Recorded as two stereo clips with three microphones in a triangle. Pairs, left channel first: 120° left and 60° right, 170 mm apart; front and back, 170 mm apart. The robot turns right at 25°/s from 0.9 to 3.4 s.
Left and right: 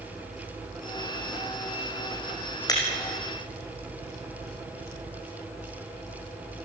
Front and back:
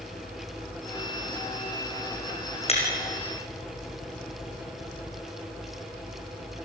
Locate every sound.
2.7 s breaking glass: 50° left, 4 m; by 2.8 s 55° left, 4 m